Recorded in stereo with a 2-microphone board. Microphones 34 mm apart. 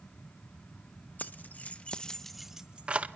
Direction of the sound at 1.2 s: 55° left (ahead or behind).